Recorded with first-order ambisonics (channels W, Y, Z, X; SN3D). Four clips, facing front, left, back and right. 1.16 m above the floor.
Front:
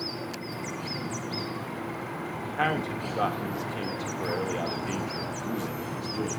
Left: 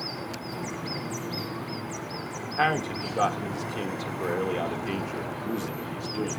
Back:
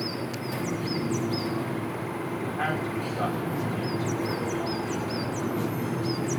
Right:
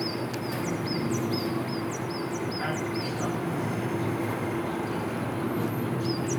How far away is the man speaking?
About 1.5 m.